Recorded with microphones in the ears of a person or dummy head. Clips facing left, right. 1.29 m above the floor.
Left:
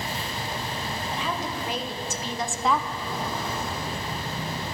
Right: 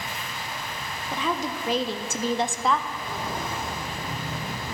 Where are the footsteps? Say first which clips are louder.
Left 1 dB; centre (ahead or behind), 3.5 m; by 4.8 s 25° right (ahead or behind), 3 m.